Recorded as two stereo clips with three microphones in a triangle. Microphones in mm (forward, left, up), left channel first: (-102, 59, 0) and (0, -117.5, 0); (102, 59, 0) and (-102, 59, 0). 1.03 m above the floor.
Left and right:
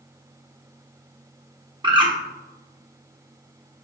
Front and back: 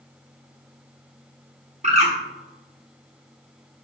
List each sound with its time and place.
1.8 s a bird: 125° right, 1.2 m